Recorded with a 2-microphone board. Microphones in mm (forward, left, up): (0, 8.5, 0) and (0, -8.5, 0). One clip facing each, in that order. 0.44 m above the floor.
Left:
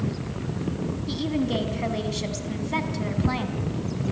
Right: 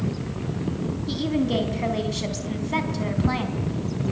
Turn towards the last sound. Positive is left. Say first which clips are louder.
# right 2 dB
turn(degrees=0)  # may be behind; listen again after turning